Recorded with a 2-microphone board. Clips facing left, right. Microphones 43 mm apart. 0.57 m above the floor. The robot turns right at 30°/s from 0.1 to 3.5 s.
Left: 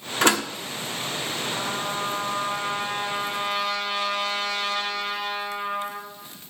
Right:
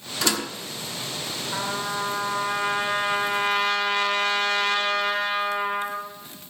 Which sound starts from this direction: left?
A door slam, at 0.2 s.